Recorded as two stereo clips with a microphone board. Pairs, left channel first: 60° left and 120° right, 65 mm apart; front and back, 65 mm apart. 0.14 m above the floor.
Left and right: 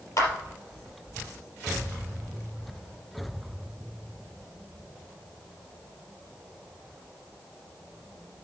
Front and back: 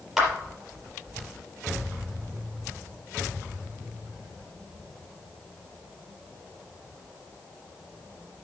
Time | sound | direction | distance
0.2 | a clap | 90° left | 3.5 m